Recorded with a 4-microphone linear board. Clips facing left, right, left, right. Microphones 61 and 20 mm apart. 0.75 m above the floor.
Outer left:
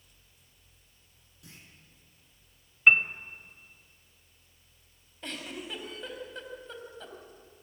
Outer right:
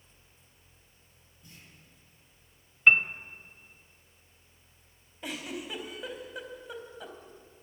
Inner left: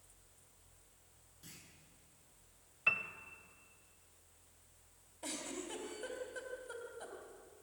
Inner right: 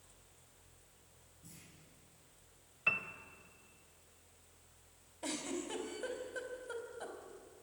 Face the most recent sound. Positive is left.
turn(degrees=-10)  # may be behind; listen again after turning